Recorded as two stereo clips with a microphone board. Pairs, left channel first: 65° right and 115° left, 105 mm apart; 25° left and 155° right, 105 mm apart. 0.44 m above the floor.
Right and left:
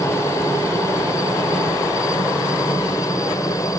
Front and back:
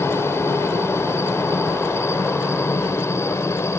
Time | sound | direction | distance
0.0 | a helicopter | 25° right | ?